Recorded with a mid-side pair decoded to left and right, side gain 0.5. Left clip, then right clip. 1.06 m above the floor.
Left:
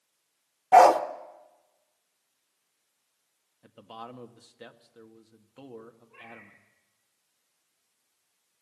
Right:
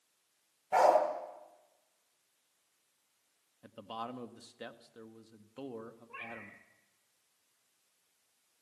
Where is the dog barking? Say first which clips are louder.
Left 9 dB; 60° left, 1.4 m.